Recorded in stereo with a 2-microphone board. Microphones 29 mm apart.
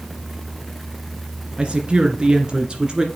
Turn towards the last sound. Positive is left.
turn(degrees=-25)  # may be behind; listen again after turning